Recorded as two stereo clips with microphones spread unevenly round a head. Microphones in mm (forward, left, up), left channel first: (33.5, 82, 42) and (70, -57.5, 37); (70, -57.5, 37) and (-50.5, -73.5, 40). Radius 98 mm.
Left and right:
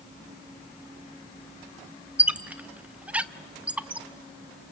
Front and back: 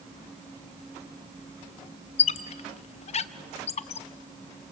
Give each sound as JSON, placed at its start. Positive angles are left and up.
{"t": 2.2, "sound": "a squeak", "azimuth_deg": 5, "distance_m": 0.6}